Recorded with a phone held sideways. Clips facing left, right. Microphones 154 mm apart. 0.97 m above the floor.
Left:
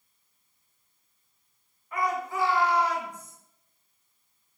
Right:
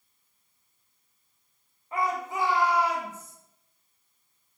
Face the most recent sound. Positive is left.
turn(degrees=0)  # may be behind; listen again after turning